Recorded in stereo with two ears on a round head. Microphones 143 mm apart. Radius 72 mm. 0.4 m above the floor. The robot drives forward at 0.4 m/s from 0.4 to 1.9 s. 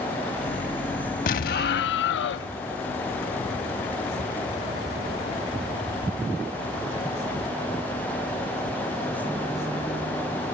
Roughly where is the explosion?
Left.